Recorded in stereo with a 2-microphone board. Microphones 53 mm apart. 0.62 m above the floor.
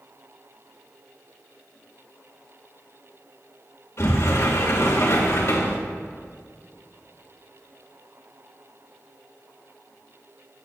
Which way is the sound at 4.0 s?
60° left (ahead or behind).